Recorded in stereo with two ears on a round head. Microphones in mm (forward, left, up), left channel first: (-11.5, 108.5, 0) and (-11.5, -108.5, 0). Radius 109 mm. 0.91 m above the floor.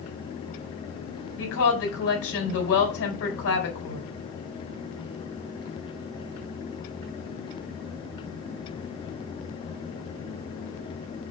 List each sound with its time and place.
1.4 s a woman speaking: 65° left (ahead or behind), 4 m